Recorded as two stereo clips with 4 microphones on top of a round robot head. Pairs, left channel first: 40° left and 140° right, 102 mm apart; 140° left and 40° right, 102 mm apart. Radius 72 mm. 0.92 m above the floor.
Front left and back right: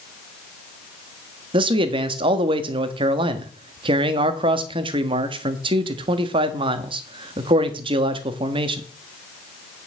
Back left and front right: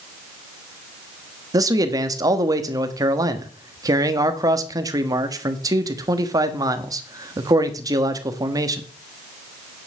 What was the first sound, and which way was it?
A man speaking, 100° right.